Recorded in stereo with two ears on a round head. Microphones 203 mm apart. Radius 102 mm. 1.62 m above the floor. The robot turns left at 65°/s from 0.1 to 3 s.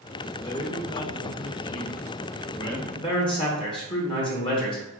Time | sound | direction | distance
0.4 | a man speaking | 165° left | 0.8 m
3.0 | a man speaking | 25° left (ahead or behind) | 1.0 m